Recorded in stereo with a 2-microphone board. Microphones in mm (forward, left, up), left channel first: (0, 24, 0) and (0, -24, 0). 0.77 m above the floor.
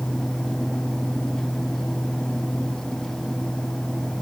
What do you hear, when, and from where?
Only background noise.